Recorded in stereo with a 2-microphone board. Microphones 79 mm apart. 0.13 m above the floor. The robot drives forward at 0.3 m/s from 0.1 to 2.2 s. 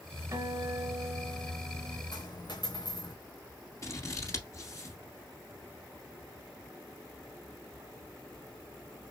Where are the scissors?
40° left (ahead or behind), 1.3 m.